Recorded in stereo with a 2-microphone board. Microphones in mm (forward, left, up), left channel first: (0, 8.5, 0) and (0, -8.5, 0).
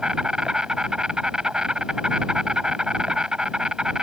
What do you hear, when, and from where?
0.0 s an insect: 60° right (ahead or behind)